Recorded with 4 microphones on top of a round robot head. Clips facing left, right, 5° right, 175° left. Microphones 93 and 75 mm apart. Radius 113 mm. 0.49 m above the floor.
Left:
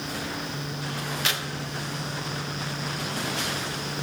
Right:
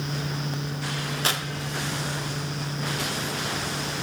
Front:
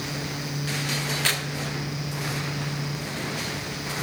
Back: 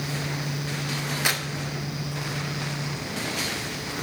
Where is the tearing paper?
115° right, 1.7 m.